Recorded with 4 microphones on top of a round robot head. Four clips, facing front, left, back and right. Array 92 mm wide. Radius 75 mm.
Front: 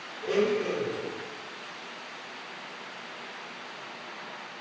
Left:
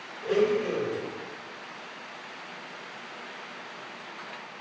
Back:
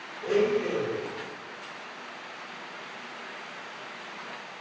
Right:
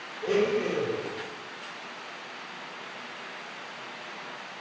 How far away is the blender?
About 1.9 m.